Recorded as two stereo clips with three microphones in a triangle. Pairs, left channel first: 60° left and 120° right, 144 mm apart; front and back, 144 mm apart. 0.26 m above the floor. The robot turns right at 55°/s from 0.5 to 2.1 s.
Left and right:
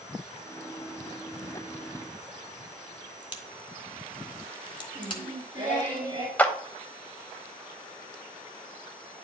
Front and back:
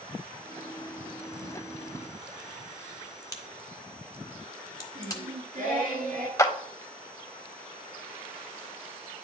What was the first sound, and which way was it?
A crack, 45° left.